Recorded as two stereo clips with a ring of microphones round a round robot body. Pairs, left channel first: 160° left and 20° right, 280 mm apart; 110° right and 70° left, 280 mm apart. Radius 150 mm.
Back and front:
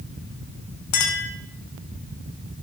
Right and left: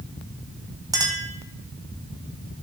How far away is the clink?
About 2.0 m.